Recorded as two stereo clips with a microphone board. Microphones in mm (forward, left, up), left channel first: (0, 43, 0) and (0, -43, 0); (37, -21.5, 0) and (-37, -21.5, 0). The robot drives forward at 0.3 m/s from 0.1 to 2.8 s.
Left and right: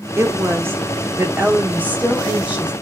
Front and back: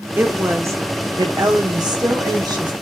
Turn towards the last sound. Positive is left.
turn(degrees=-165)